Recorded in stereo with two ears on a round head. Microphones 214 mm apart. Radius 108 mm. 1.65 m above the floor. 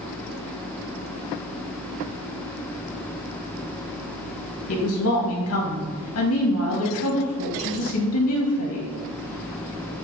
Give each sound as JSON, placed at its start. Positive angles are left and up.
{"t": 4.7, "sound": "a woman speaking", "side_deg": 70, "distance_m": 2.0}